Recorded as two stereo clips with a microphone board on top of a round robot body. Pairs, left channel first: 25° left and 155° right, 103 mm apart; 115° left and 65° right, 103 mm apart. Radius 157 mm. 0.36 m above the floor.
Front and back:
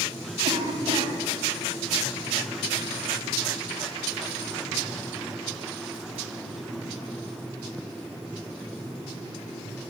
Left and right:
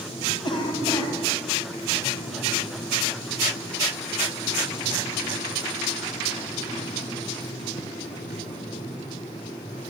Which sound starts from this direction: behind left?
A cough, at 0.4 s.